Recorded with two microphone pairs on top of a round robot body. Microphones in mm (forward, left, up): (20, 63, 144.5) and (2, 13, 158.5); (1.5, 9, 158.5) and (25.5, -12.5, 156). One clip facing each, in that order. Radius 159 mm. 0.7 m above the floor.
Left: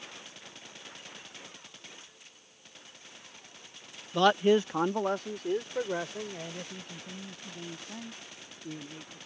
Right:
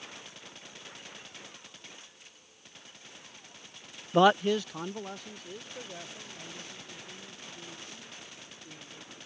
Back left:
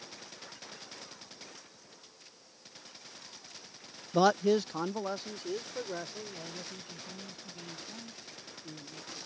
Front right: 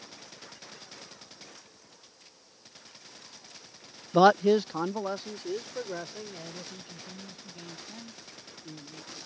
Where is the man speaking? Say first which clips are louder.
Even, front right 5 dB; 55° right; by 9.2 s 45° left.